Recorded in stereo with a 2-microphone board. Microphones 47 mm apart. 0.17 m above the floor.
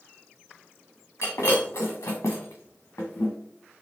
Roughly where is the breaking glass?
Left.